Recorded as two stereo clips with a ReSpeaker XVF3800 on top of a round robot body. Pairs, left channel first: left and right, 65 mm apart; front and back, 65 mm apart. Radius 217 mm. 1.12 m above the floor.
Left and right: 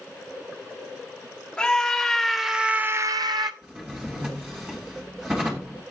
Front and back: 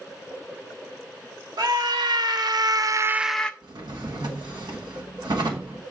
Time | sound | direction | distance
1.6 | a scream | 170° left | 1.4 m
3.6 | a drawer | 165° right | 1.2 m